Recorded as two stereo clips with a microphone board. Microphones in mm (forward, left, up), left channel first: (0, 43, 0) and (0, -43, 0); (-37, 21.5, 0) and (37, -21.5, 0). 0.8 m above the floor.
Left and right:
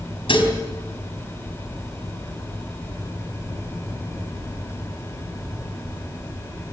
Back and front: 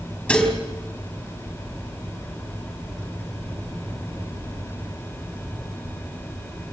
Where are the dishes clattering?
70° left, 4 m.